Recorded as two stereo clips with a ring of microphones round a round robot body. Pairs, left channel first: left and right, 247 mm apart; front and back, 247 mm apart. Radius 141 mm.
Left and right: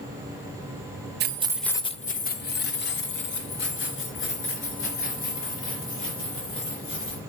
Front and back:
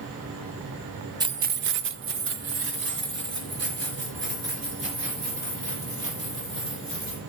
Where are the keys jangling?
110° right, 0.6 m; by 7.2 s 125° left, 6.5 m.